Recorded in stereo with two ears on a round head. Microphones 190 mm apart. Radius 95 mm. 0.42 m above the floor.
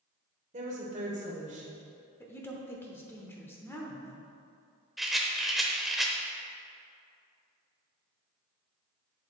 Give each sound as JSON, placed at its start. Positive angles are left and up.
{"t": 0.5, "sound": "a woman speaking", "side_deg": -35, "distance_m": 1.6}
{"t": 2.2, "sound": "a woman speaking", "side_deg": 10, "distance_m": 0.8}
{"t": 5.0, "sound": "a rattle", "side_deg": 0, "distance_m": 0.6}